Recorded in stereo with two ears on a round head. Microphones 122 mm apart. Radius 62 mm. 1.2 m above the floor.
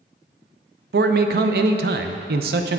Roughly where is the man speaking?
Right.